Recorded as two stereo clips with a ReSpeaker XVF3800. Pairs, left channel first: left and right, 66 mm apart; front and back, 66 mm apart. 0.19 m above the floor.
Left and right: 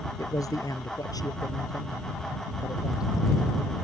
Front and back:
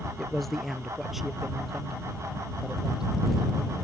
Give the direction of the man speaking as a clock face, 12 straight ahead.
9 o'clock.